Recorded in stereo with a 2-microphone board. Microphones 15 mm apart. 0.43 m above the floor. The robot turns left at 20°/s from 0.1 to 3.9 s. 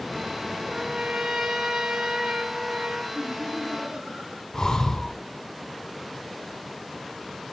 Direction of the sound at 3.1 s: 65° right (ahead or behind).